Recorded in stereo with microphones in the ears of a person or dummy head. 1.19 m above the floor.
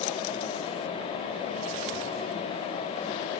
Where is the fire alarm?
No fire alarm in this recording.